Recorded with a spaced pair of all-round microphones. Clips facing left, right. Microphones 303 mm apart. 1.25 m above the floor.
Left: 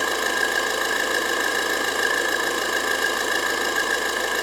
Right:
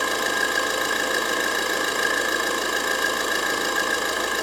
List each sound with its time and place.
0.0 s an engine running: centre (ahead or behind), 1.8 m